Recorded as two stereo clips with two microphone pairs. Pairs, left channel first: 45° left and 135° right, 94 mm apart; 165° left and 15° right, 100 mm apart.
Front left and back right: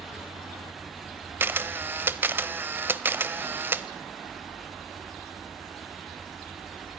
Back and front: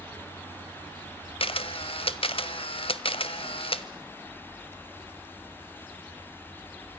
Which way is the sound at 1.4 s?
160° left.